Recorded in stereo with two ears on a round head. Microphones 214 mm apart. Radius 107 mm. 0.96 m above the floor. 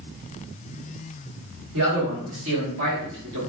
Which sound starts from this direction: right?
A man speaking, at 1.7 s.